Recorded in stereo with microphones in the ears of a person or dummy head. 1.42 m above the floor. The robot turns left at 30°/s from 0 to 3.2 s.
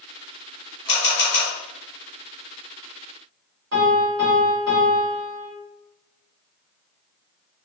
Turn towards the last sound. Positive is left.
turn(degrees=-55)  # may be behind; listen again after turning